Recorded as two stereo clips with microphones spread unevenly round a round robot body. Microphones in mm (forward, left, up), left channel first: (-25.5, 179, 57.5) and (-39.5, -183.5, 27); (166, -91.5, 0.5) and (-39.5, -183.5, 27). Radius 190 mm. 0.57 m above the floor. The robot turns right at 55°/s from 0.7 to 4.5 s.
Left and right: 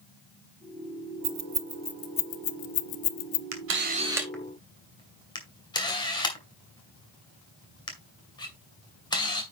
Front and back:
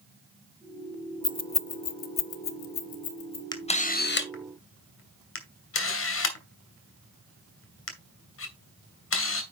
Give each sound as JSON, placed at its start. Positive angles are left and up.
{"t": 1.2, "sound": "keys jangling", "azimuth_deg": -40, "distance_m": 0.8}
{"t": 3.5, "sound": "a camera shutter", "azimuth_deg": -45, "distance_m": 2.5}